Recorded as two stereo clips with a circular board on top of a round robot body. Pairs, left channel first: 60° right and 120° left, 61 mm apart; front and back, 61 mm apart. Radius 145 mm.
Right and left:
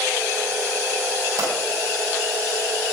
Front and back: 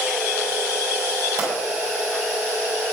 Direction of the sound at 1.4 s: 110° left.